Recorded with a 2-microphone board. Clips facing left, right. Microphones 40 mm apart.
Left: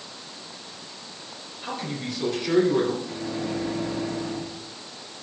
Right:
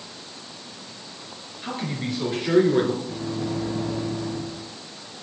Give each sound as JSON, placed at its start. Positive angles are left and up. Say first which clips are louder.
{"t": 1.6, "sound": "a man speaking", "louder": "right 2 dB", "side_deg": -20, "distance_m": 3.5}
{"t": 3.0, "sound": "a microwave", "louder": "right 1 dB", "side_deg": 35, "distance_m": 2.5}